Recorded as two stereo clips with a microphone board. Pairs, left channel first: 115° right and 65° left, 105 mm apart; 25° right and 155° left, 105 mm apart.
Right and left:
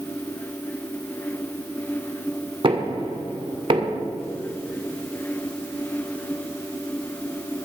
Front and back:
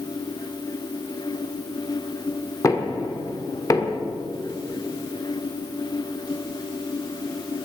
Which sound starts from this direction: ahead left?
Knocking, at 2.6 s.